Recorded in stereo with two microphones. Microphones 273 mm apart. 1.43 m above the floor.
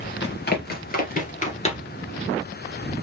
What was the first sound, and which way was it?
Running footsteps, 40° left (ahead or behind).